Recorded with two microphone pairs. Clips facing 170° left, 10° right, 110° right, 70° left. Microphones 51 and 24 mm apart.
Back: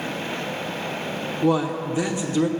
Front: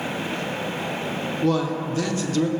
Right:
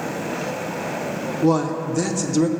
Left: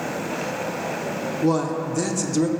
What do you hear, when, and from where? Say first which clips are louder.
1.4 s a man speaking: back 2 dB, right 3 dB; 175° right, 0.7 m